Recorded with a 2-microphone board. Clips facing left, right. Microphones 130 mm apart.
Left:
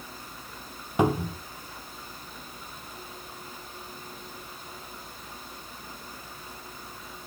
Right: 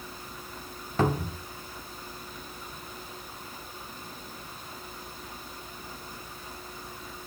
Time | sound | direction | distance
1.0 | a cupboard door | 15° left (ahead or behind) | 1.0 m